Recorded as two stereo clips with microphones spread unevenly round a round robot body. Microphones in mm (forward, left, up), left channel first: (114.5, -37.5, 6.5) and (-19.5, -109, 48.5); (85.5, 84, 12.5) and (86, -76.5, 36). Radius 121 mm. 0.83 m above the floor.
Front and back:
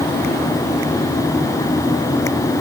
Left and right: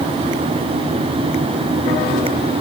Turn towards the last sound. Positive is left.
No sound to turn to.